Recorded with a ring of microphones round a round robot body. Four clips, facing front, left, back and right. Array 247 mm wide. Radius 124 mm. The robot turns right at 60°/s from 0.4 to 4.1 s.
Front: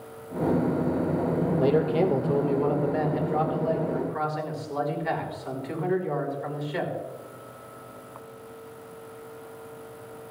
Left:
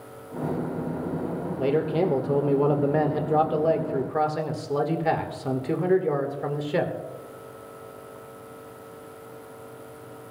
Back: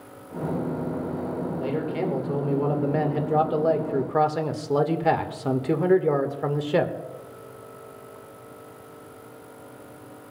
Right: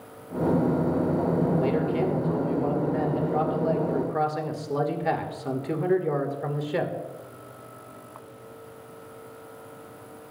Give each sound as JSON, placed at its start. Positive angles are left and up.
{"t": 1.6, "sound": "a man speaking", "azimuth_deg": 25, "distance_m": 1.5}